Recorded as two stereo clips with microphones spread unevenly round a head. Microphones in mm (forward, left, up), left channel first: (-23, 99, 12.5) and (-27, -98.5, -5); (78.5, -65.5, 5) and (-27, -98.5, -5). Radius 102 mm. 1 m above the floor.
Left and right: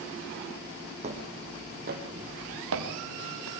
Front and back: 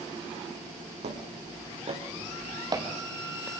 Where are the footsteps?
150° right, 3.5 m; by 3.5 s 85° right, 2.5 m.